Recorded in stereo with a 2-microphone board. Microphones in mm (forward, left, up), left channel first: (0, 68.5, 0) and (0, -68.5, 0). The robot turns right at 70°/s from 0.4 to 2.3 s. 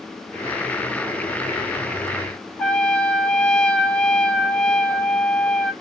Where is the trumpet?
5° left (ahead or behind), 1.0 m.